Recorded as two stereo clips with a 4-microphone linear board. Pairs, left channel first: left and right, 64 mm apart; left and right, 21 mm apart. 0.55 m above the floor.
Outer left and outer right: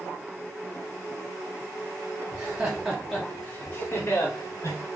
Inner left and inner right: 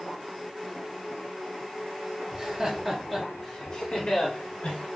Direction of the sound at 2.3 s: 30° right (ahead or behind).